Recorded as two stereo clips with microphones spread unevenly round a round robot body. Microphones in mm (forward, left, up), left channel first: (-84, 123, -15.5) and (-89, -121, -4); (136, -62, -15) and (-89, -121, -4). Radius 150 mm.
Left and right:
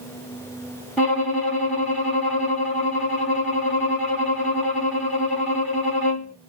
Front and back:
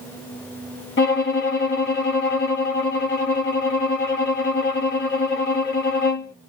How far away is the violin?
About 1.9 m.